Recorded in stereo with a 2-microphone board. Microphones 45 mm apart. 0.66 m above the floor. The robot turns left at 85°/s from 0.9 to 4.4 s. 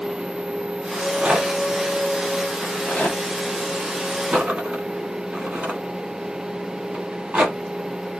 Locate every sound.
0.9 s a rattle: 40° right (ahead or behind), 1.4 m; by 7.6 s 30° right (ahead or behind), 1.4 m